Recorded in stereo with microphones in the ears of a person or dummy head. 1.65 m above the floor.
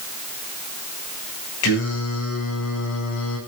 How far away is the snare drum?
I don't hear a snare drum.